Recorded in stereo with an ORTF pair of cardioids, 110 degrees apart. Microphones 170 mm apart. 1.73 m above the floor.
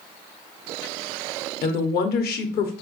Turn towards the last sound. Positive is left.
turn(degrees=70)